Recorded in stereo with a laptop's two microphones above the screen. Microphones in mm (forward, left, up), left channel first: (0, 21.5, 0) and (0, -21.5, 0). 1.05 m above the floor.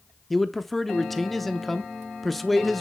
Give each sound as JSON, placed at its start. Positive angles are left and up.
{"t": 0.3, "sound": "a man speaking", "side_deg": 5, "distance_m": 0.7}